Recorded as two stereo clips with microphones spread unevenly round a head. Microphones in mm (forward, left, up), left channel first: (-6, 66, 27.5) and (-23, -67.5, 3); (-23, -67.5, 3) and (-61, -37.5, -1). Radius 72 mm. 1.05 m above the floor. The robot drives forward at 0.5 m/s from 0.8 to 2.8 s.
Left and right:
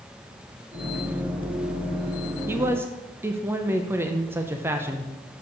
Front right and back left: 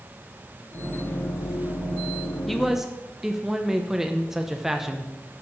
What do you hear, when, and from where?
2.5 s a man speaking: 125° right, 0.6 m; by 5.1 s 145° right, 0.6 m